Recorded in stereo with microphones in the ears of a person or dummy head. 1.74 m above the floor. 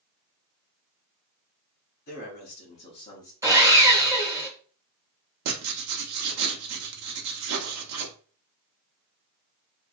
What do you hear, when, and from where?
2.1 s a man speaking: 45° left (ahead or behind), 1.2 m; by 3.3 s 10° left (ahead or behind), 0.8 m
3.4 s sawing: 20° right (ahead or behind), 1.0 m
5.5 s writing: 85° right, 0.7 m